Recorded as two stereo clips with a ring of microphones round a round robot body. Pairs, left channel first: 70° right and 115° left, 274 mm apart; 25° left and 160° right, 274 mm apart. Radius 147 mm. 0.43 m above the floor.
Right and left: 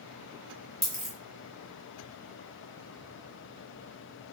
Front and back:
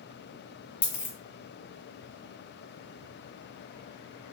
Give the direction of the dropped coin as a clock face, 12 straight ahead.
11 o'clock.